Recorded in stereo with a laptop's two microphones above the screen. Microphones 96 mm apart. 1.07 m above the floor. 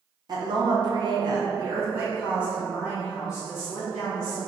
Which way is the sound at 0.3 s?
45° right (ahead or behind).